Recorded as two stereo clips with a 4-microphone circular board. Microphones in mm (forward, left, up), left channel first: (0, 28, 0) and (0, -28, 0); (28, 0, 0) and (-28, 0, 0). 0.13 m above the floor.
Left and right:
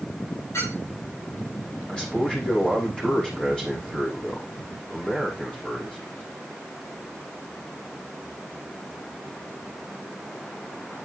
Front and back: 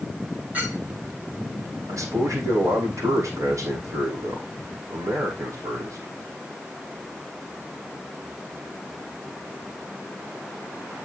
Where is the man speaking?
160° left, 6 m.